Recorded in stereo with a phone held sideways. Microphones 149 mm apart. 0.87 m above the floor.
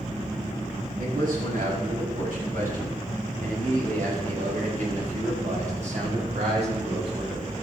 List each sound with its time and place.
1.0 s a man speaking: 80° right, 6.5 m; by 7.5 s 45° right (ahead or behind), 5 m